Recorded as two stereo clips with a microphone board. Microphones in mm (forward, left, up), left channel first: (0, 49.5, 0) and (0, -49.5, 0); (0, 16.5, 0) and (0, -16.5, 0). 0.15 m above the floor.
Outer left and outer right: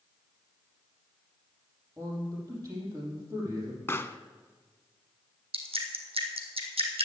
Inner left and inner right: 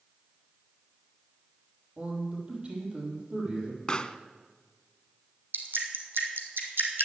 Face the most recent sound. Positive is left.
turn(degrees=-80)